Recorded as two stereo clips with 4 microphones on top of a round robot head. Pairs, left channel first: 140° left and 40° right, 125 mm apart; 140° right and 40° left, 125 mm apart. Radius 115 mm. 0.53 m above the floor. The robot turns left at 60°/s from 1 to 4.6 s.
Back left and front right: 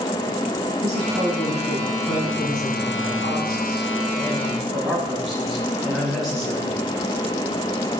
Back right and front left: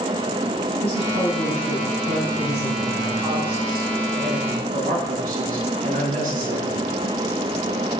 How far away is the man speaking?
About 8 m.